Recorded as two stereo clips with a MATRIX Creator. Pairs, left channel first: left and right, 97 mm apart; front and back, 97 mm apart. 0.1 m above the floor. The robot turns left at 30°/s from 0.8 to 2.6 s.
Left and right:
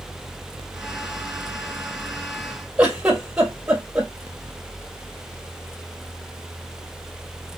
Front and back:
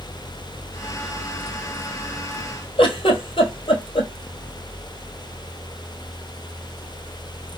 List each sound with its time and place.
2.8 s a giggle: 10° right, 1.5 m